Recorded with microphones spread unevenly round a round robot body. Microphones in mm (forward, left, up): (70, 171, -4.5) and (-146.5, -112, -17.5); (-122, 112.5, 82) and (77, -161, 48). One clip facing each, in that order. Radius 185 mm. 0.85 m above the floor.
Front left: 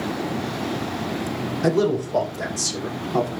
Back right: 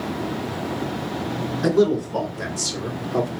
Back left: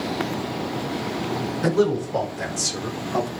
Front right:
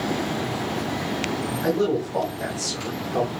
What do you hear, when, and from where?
1.6 s a man speaking: 145° left, 4 m; by 3.3 s 130° left, 3 m